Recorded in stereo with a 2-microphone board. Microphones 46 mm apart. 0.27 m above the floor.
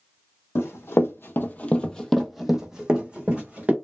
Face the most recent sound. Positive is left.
turn(degrees=-30)  # may be behind; listen again after turning